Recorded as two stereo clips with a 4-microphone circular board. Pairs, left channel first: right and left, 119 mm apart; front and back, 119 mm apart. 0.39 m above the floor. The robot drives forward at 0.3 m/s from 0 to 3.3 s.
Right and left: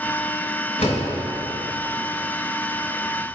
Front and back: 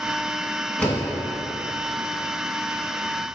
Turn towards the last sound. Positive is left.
turn(degrees=-100)